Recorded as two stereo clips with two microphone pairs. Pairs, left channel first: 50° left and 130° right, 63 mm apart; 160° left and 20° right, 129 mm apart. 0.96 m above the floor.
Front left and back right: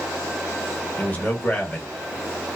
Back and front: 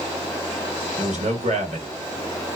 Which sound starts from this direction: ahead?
A man speaking, at 1.0 s.